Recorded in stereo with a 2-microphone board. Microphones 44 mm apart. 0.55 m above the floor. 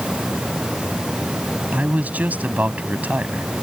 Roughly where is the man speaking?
Right.